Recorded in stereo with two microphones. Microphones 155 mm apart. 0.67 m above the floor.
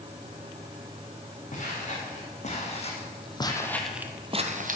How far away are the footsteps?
About 4 m.